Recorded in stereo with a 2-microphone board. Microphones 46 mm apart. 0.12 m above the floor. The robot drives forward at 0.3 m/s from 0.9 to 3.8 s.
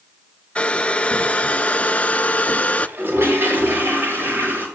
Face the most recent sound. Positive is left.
turn(degrees=-60)  # may be behind; listen again after turning